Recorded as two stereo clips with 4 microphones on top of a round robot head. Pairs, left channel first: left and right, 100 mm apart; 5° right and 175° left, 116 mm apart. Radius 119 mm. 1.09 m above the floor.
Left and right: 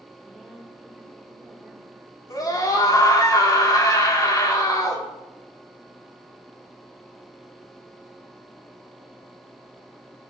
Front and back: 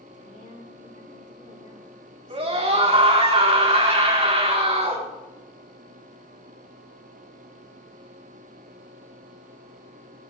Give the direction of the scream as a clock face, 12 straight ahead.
7 o'clock.